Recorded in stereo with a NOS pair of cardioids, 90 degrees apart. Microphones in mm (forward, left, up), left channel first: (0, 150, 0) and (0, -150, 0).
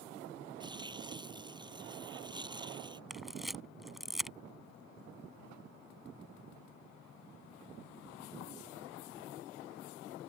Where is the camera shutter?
Straight ahead.